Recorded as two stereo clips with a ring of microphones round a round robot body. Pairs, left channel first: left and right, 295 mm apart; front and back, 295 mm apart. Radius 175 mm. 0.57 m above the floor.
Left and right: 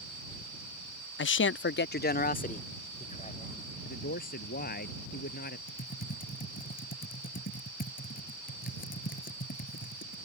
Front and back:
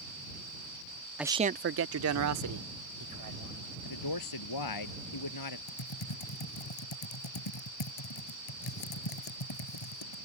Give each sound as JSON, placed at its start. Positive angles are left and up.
{"t": 1.2, "sound": "a man speaking", "azimuth_deg": 95}
{"t": 3.9, "sound": "a man speaking", "azimuth_deg": 25}
{"t": 5.7, "sound": "typing on a keyboard", "azimuth_deg": 25}